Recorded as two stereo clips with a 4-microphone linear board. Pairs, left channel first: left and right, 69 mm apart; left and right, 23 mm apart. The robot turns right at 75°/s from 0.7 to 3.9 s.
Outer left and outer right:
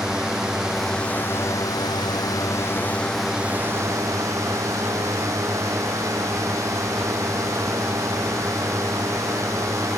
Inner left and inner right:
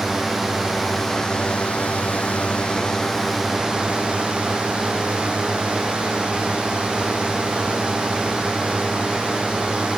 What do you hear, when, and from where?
0.0 s a drone: 10° right; by 10.0 s 130° right